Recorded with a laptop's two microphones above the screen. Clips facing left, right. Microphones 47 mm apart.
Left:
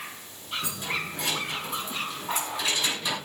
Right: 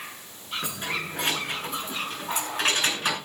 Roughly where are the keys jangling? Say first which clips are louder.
Right 1 dB; right.